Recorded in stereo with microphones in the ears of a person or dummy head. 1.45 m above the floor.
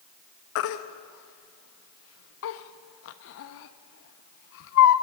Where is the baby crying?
65° left (ahead or behind), 1.2 m.